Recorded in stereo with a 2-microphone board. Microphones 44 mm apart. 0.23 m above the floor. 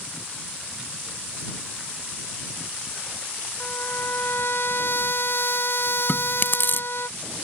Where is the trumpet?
55° left (ahead or behind).